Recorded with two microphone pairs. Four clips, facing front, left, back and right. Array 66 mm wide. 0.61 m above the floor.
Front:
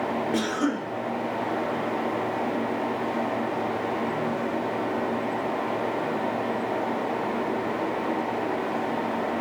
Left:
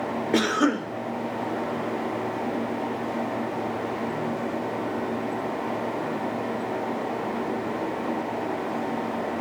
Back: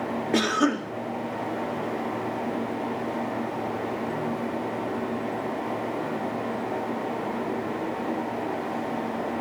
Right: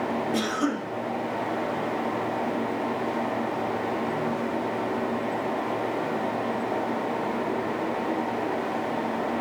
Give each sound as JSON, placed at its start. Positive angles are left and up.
{"t": 0.3, "sound": "a cough", "azimuth_deg": 115, "distance_m": 1.7}